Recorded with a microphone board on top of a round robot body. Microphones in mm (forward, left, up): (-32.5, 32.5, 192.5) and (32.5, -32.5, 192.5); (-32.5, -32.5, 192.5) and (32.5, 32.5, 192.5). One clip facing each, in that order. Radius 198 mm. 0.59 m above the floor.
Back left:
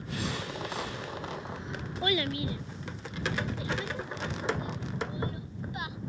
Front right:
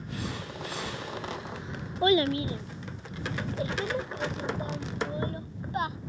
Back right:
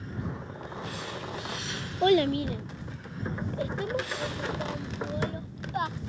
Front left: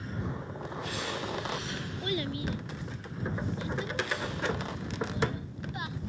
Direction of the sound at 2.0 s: 110° right.